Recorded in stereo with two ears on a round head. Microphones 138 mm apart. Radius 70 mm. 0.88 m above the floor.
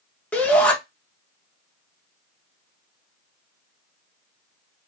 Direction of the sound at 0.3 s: 10° left (ahead or behind).